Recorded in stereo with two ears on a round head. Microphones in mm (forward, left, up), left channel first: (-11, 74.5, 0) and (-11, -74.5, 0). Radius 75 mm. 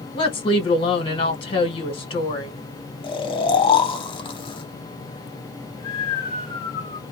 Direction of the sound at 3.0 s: 30° left (ahead or behind).